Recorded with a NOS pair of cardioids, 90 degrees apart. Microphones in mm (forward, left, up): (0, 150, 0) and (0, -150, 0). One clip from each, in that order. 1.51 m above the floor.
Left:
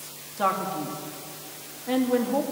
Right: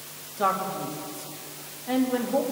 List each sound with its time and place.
0.4 s a man speaking: 20° left, 3 m